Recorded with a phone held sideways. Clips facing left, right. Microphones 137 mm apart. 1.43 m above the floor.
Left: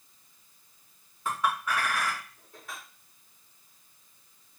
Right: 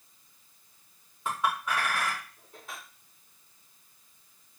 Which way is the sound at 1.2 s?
25° right (ahead or behind).